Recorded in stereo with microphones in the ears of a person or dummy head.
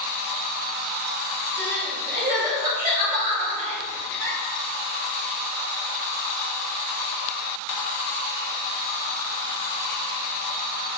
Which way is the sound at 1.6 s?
45° right (ahead or behind).